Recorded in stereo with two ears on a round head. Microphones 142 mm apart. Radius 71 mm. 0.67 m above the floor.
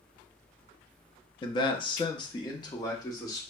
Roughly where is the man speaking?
Left.